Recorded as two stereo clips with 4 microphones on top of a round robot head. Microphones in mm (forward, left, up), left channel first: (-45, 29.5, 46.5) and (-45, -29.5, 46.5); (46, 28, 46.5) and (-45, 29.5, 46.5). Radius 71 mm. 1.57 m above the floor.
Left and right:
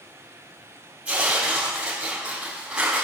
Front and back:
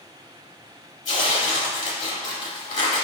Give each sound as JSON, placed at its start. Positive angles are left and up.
{"t": 1.1, "sound": "tearing paper", "azimuth_deg": -15, "distance_m": 4.0}